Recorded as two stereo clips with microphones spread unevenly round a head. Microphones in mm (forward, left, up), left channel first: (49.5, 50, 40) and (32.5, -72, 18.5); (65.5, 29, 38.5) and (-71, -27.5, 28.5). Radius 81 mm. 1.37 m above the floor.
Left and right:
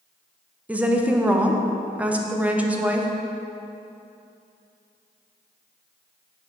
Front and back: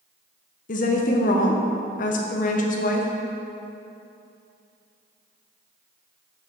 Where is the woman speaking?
15° right, 0.6 m.